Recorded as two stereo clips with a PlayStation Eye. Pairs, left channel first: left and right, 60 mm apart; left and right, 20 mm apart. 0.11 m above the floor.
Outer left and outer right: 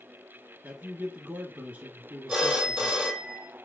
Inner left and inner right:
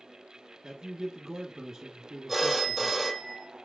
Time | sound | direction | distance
0.6 | a man speaking | 25° right (ahead or behind) | 1.2 m
2.3 | a phone ringing | 5° right (ahead or behind) | 2.0 m